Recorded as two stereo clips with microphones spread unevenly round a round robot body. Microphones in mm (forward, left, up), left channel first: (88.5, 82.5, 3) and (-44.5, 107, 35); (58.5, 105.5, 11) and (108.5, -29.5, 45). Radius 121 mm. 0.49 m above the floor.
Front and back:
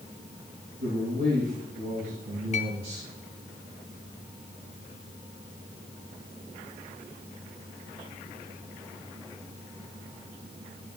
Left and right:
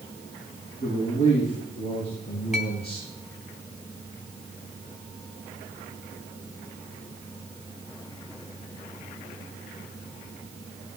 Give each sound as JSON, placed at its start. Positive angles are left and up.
{"t": 0.8, "sound": "a man speaking", "azimuth_deg": 155, "distance_m": 7.5}
{"t": 2.5, "sound": "a clink", "azimuth_deg": 20, "distance_m": 3.0}